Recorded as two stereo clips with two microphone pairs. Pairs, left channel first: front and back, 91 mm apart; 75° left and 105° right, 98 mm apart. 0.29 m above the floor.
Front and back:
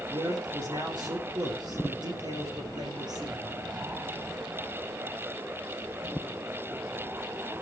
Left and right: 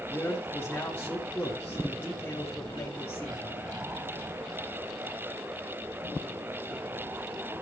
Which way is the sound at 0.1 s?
150° left.